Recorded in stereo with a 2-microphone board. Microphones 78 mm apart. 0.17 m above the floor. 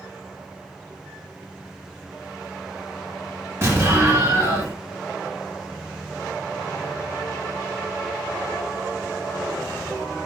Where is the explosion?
30° right (ahead or behind), 2 m.